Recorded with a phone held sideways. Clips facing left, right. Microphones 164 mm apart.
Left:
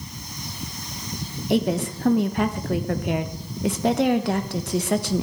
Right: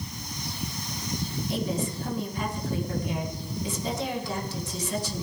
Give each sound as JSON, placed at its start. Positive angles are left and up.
{"t": 1.5, "sound": "a woman speaking", "side_deg": 70, "distance_m": 1.2}